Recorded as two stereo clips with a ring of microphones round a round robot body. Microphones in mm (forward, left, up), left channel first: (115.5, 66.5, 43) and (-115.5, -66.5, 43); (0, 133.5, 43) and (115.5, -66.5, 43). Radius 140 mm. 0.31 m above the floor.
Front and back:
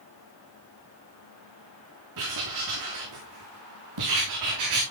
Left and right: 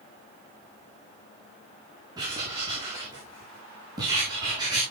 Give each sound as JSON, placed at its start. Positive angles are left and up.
{"t": 2.2, "sound": "writing", "azimuth_deg": -135, "distance_m": 8.0}